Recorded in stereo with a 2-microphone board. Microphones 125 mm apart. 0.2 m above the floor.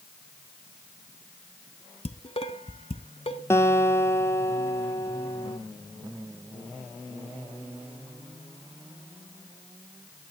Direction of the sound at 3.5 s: 20° left (ahead or behind).